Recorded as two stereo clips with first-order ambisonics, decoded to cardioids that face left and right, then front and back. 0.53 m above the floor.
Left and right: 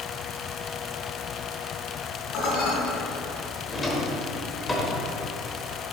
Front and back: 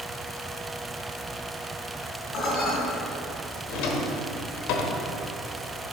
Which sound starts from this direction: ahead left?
Dishes clattering, at 2.3 s.